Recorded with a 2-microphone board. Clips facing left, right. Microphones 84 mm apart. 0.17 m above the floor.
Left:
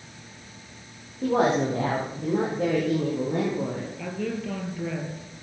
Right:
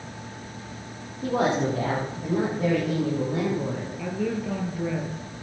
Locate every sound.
1.2 s a woman speaking: 80° left, 8.5 m; by 3.9 s 75° left (ahead or behind), 8 m
4.0 s a woman speaking: 5° right (ahead or behind), 5 m